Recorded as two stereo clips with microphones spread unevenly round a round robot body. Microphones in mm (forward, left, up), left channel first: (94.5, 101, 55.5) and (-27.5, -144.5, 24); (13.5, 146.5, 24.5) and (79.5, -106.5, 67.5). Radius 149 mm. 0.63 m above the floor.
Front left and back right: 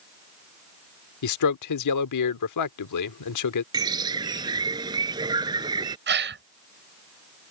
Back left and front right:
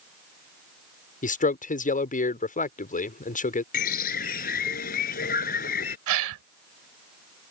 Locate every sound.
1.2 s a man speaking: 45° left
3.7 s a bird: 165° left
6.1 s a gasp: 65° right